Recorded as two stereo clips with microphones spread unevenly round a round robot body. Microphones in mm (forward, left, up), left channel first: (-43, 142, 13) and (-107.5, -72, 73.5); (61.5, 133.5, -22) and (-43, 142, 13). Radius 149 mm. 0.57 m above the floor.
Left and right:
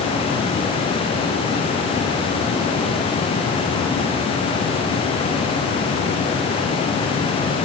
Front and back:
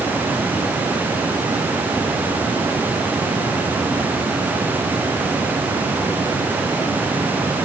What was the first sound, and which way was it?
Only background noise.